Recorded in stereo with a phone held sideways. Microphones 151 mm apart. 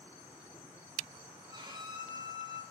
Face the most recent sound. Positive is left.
turn(degrees=-30)  # may be behind; listen again after turning